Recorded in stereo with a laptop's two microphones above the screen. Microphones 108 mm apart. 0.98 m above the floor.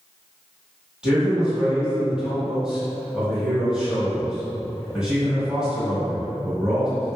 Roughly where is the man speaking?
Centre.